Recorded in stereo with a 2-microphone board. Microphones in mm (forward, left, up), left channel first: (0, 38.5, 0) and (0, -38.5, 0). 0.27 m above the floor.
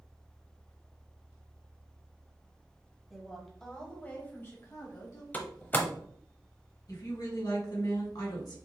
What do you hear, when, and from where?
3.1 s a woman speaking: 5° right (ahead or behind), 1.3 m; by 5.2 s 40° left (ahead or behind), 1.3 m
5.3 s a door slam: 25° left (ahead or behind), 0.7 m
6.9 s a woman speaking: 60° left (ahead or behind), 1.9 m